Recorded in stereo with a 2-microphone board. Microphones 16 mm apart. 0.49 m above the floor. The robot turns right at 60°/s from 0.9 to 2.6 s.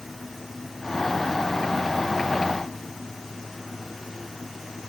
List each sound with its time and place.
Only background noise.